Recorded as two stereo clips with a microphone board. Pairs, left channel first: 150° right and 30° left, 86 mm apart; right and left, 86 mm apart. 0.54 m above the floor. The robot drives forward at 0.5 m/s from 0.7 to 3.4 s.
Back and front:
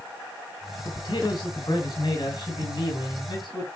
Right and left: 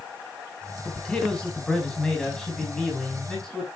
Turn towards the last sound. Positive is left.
turn(degrees=-175)